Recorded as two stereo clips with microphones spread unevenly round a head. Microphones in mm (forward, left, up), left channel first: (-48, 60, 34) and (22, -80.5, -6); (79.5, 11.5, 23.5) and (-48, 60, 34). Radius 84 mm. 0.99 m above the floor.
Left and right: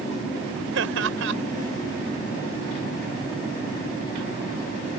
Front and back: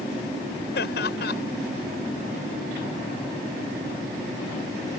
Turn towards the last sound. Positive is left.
turn(degrees=-50)